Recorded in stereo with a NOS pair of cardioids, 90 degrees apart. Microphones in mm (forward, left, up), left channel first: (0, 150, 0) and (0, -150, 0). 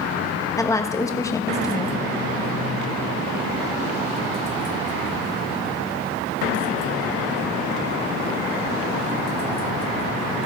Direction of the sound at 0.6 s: 10° left.